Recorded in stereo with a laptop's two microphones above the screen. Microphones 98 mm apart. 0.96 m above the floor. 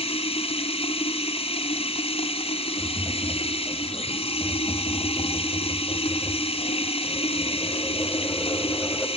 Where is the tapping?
20° left (ahead or behind), 2.5 m.